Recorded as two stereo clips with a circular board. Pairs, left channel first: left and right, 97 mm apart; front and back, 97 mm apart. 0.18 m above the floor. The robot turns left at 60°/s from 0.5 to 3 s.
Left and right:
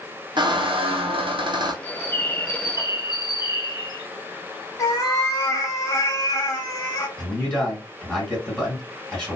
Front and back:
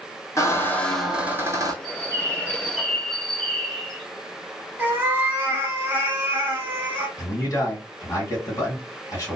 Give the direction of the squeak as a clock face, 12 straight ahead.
2 o'clock.